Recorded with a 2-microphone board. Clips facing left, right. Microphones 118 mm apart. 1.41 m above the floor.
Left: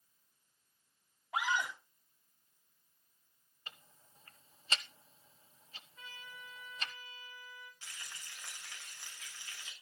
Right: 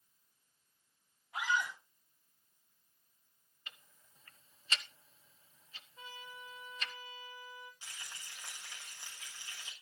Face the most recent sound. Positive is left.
turn(degrees=-15)  # may be behind; listen again after turning